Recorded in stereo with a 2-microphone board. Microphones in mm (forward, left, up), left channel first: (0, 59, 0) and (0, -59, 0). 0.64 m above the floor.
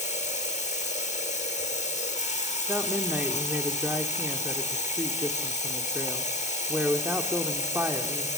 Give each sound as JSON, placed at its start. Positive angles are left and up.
{"t": 0.0, "sound": "running water", "side_deg": 85, "distance_m": 7.0}
{"t": 2.7, "sound": "a woman speaking", "side_deg": -15, "distance_m": 1.7}